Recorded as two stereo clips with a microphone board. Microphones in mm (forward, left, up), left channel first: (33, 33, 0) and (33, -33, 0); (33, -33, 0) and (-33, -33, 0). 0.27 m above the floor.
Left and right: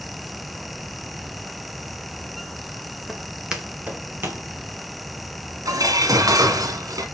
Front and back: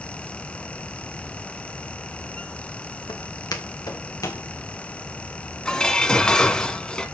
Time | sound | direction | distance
3.1 | footsteps | straight ahead | 3 m
5.7 | dishes clattering | 75° right | 1.8 m